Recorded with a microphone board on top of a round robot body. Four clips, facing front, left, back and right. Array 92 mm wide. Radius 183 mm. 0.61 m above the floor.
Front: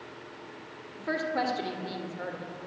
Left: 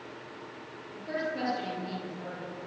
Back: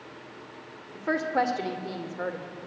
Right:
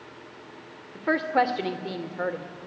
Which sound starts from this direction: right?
A woman speaking, at 0.9 s.